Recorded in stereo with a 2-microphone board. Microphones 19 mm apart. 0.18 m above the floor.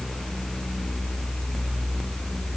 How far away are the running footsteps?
No running footsteps in this recording.